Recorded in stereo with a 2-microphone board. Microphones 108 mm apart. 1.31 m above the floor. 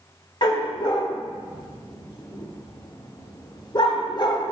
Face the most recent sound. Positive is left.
turn(degrees=45)  # may be behind; listen again after turning